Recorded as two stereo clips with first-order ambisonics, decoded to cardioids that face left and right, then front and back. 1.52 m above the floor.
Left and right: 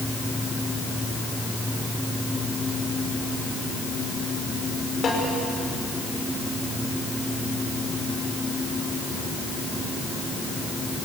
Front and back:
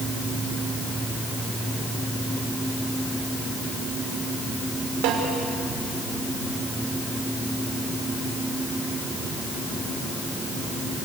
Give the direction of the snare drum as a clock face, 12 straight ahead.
7 o'clock.